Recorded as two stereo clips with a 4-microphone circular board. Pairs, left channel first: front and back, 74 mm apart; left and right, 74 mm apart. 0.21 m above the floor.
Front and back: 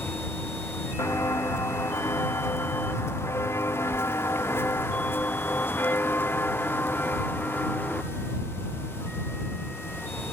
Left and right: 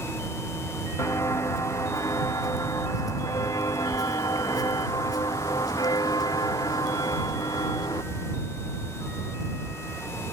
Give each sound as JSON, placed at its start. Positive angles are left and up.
{"t": 1.0, "sound": "footsteps", "azimuth_deg": 45}